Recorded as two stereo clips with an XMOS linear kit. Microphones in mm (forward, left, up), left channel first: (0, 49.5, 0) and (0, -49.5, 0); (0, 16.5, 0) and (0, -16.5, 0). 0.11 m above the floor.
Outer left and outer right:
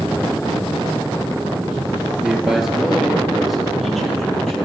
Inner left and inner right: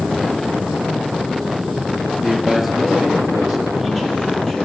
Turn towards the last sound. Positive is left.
turn(degrees=5)  # may be behind; listen again after turning